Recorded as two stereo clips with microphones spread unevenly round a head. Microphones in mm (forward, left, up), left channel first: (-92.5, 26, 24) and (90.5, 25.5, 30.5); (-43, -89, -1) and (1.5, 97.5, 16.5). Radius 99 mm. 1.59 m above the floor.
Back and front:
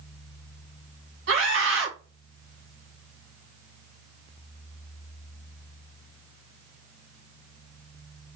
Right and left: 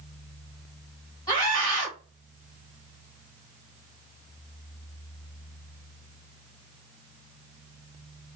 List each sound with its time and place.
1.3 s a scream: 35° right, 2.5 m